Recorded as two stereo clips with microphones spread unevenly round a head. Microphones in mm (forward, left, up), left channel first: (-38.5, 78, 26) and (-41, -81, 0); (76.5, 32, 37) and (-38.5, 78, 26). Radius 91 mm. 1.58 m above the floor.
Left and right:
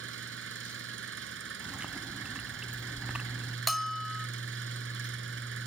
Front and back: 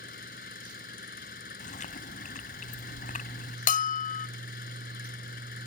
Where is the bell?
5° right.